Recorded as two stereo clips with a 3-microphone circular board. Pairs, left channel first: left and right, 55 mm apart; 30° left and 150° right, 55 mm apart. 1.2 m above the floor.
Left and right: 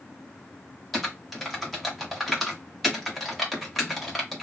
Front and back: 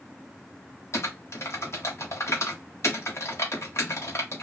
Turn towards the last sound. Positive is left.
turn(degrees=0)